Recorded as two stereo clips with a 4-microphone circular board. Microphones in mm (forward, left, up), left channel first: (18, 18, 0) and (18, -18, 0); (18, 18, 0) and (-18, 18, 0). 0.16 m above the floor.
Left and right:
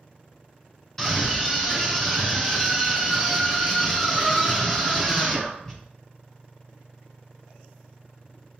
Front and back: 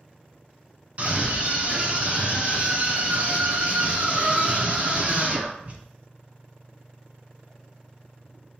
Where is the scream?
165° left, 1.5 m.